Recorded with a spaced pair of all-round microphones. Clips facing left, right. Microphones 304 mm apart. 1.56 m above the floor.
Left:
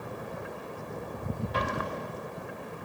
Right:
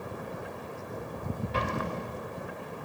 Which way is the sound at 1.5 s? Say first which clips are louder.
Right 3 dB; 30° right (ahead or behind).